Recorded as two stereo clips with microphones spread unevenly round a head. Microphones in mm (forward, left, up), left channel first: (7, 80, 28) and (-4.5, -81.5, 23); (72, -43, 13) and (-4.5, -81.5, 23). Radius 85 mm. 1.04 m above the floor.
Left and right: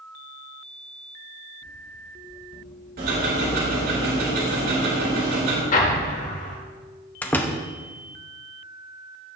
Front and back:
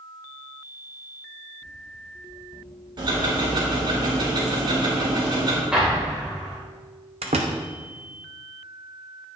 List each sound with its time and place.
1.6 s running footsteps: 95° left, 2.0 m; by 4.0 s 90° left, 4.5 m
3.0 s ticking: 125° right, 3.5 m
5.7 s an explosion: 125° left, 1.2 m
7.2 s a door slam: 165° left, 0.7 m